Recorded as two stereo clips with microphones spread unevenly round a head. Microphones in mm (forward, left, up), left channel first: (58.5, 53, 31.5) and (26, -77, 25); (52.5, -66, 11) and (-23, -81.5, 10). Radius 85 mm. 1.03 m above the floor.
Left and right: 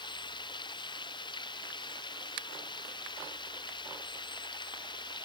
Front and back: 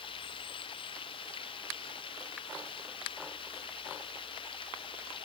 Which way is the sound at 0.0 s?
20° left.